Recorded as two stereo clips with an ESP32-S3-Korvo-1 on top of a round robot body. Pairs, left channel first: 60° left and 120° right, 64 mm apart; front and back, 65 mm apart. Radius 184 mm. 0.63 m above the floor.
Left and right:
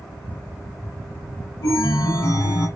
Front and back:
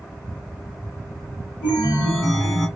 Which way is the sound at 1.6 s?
60° left.